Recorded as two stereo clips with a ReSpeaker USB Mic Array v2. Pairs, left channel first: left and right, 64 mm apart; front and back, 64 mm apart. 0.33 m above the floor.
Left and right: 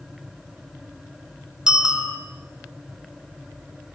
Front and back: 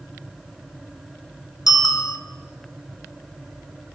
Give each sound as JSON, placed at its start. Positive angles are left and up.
{"t": 1.7, "sound": "a bicycle bell", "azimuth_deg": -10, "distance_m": 2.5}